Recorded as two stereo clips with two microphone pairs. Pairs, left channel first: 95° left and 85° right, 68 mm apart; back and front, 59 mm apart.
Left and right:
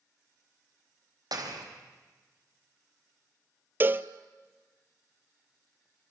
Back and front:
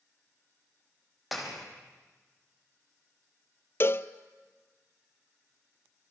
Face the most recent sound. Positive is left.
turn(degrees=-140)